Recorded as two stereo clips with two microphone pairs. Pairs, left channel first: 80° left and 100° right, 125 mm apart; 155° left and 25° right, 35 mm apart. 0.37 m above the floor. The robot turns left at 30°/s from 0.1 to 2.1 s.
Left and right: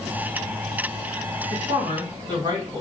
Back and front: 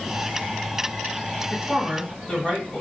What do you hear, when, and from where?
1.5 s a woman speaking: 125° right, 1.7 m; by 2.8 s 145° right, 1.7 m